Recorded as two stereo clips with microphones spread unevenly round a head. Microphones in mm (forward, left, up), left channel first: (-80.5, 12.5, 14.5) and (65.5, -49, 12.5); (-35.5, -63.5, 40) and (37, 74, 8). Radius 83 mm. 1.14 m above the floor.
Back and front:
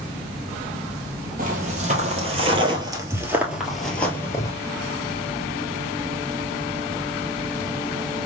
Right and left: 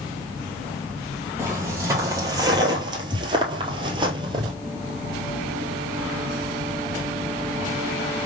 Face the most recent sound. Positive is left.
turn(degrees=115)